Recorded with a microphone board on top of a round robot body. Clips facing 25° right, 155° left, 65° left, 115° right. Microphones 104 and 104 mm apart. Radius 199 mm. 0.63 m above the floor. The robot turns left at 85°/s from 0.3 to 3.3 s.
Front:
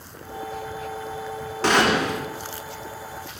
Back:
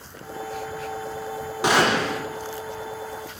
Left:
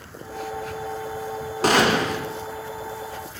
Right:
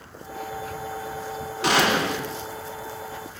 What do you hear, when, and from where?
1.6 s a gunshot: 85° left, 1.3 m; by 2.2 s 40° left, 1.3 m